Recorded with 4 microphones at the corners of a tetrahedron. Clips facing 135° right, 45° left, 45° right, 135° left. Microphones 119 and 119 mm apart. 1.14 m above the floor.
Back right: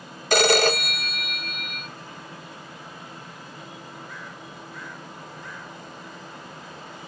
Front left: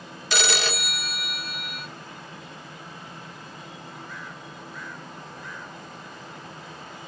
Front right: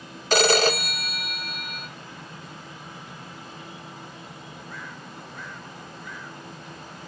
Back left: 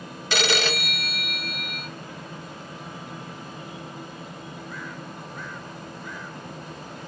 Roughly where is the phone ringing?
Right.